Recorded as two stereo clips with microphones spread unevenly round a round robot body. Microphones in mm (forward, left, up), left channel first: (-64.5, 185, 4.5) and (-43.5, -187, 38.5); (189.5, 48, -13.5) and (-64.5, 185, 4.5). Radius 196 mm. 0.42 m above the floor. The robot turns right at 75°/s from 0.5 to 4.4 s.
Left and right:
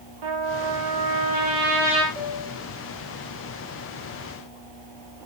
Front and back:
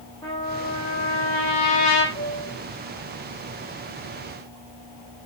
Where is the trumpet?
105° right, 5 m; by 2.0 s 10° left, 5 m.